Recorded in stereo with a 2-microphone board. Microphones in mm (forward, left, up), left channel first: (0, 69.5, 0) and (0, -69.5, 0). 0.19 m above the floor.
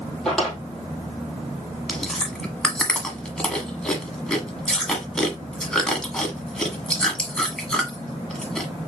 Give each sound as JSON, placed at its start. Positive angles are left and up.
{"t": 0.2, "sound": "a drawer", "side_deg": 5, "distance_m": 2.0}
{"t": 1.9, "sound": "chewing", "side_deg": 5, "distance_m": 1.3}